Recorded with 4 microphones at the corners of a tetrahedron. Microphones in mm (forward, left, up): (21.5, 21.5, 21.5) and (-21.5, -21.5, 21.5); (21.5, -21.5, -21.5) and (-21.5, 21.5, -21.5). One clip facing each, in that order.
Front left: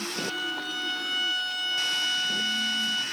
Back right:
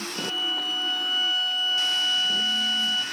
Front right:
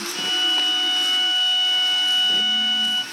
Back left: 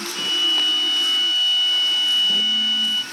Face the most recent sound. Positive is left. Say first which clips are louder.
# back right 3 dB, back left 1 dB
turn(degrees=30)